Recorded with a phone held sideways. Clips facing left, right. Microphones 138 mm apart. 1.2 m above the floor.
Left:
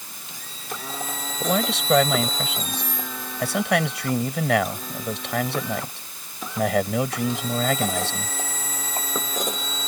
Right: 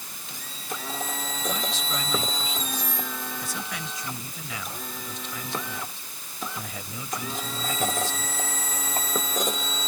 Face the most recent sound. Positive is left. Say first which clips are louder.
# left 10 dB
turn(degrees=75)  # may be behind; listen again after turning